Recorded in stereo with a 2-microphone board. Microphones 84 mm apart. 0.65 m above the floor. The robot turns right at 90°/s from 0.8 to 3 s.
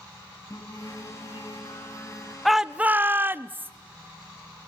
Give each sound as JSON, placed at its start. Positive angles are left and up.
{"t": 0.5, "sound": "singing", "azimuth_deg": 40, "distance_m": 2.5}
{"t": 2.5, "sound": "a shout", "azimuth_deg": 180, "distance_m": 0.6}